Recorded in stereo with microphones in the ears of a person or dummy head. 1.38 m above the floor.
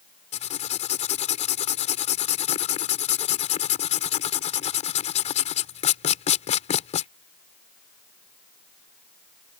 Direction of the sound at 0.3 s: 35° left (ahead or behind).